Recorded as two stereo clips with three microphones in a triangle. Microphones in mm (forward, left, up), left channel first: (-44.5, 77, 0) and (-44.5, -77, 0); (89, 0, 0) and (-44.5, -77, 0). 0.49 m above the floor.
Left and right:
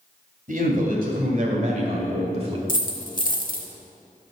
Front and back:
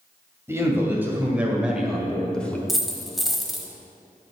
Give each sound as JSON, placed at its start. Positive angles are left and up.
{"t": 0.5, "sound": "a man speaking", "azimuth_deg": -80, "distance_m": 2.5}
{"t": 2.7, "sound": "a dropped coin", "azimuth_deg": 120, "distance_m": 0.9}